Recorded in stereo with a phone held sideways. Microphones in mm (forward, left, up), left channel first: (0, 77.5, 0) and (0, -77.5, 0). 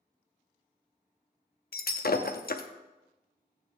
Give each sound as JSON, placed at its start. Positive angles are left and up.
{"t": 1.7, "sound": "breaking glass", "side_deg": 75, "distance_m": 0.6}